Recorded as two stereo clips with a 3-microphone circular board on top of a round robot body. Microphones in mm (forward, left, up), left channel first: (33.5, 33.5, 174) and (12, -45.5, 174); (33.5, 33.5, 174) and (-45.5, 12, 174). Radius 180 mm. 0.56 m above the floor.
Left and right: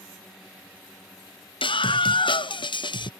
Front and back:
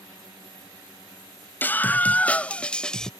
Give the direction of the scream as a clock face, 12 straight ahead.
9 o'clock.